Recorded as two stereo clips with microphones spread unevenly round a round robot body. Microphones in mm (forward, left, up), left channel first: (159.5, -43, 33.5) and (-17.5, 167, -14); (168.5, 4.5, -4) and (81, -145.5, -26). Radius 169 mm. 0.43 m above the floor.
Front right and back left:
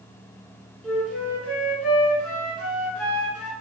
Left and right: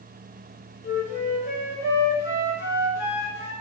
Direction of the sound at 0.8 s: 40° left.